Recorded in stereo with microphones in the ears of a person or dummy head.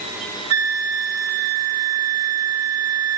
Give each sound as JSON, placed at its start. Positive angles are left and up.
{"t": 0.5, "sound": "a flute", "side_deg": -80, "distance_m": 3.0}